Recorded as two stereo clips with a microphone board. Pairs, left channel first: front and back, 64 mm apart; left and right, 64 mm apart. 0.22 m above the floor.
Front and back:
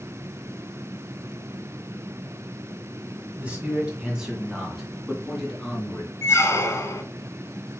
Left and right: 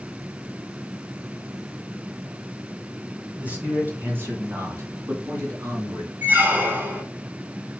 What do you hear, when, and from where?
3.4 s a man speaking: 135° right, 1.7 m; by 6.1 s 80° right, 2.5 m
6.2 s a squeak: 35° right, 0.9 m